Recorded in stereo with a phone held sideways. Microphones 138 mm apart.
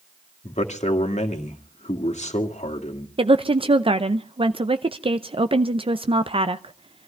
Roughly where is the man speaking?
Left.